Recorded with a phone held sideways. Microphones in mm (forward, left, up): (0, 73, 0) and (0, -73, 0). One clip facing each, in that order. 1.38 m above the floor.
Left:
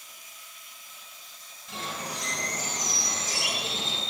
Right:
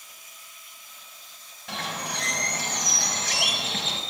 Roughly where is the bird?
Right.